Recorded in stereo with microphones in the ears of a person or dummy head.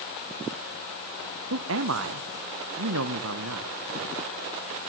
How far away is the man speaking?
About 1.8 m.